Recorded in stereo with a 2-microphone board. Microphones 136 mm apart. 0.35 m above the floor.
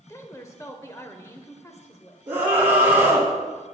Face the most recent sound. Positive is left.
turn(degrees=-15)  # may be behind; listen again after turning